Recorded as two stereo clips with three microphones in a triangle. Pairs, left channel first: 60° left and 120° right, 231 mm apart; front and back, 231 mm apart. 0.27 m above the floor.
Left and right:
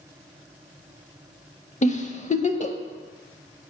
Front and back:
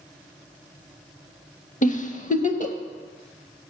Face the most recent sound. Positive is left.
turn(degrees=25)